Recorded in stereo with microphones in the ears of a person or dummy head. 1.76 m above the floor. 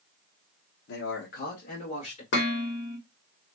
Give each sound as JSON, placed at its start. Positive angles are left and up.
{"t": 0.9, "sound": "a man speaking", "side_deg": 70, "distance_m": 1.0}
{"t": 2.3, "sound": "dishes clattering", "side_deg": 60, "distance_m": 1.7}